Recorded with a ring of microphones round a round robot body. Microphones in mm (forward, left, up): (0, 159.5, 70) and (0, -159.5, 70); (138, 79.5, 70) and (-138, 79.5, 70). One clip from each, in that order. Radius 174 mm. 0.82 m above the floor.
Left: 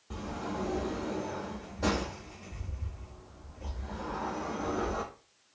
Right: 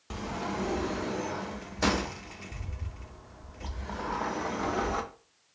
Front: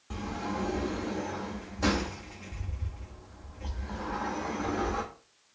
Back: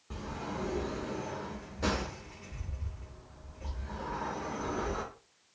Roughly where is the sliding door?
Right.